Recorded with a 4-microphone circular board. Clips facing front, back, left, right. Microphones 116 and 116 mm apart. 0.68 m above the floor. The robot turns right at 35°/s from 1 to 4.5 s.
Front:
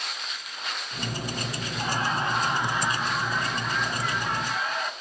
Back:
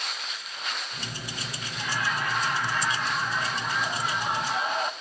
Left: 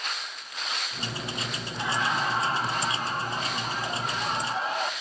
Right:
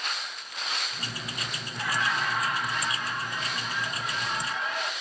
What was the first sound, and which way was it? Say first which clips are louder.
Laughter: front 2 dB, left 1 dB; 25° left.